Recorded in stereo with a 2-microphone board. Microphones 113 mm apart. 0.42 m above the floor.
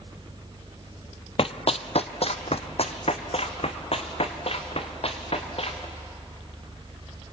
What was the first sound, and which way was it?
Running footsteps, 60° left (ahead or behind).